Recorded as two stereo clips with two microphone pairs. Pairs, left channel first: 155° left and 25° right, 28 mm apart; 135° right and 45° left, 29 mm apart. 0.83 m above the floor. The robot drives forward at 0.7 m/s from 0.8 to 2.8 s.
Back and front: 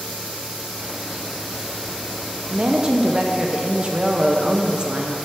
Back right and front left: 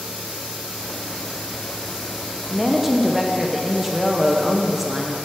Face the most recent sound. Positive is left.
turn(degrees=-30)